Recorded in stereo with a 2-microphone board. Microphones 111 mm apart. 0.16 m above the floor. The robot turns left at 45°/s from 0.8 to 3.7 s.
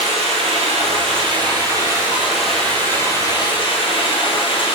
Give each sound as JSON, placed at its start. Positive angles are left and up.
{"t": 0.0, "sound": "running water", "azimuth_deg": -105, "distance_m": 1.2}